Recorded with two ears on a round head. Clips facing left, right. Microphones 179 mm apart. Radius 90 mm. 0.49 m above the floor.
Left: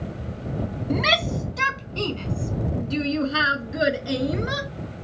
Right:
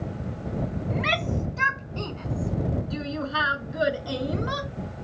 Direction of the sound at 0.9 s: 50° left (ahead or behind).